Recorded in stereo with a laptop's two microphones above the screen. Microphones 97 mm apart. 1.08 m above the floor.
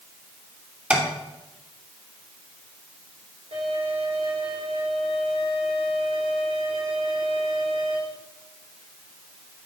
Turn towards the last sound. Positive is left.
turn(degrees=-85)